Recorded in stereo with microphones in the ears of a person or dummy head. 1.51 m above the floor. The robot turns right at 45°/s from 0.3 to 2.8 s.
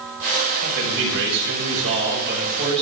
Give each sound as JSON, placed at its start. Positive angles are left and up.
{"t": 0.6, "sound": "a man speaking", "azimuth_deg": -135, "distance_m": 6.0}